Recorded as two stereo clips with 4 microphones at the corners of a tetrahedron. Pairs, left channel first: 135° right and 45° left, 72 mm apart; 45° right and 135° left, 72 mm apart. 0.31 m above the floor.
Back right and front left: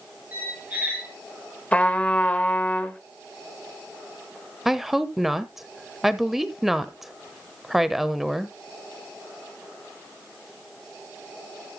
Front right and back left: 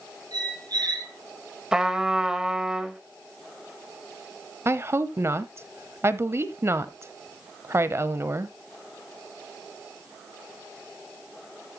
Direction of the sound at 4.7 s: 130° left.